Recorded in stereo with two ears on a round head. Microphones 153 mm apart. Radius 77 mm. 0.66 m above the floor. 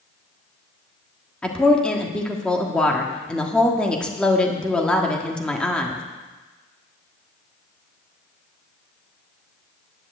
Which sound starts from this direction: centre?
A woman speaking, at 1.4 s.